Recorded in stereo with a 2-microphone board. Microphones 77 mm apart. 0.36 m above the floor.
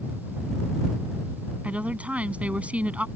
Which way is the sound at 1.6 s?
20° right (ahead or behind).